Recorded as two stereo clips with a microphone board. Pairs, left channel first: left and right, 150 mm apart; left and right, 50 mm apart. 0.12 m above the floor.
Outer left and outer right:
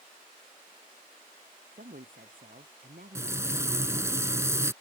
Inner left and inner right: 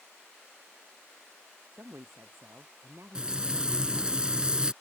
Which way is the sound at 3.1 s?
20° right (ahead or behind).